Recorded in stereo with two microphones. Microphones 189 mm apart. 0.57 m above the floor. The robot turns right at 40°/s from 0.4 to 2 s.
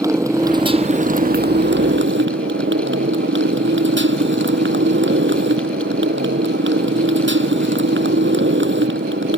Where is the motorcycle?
165° right; by 9.4 s 100° right.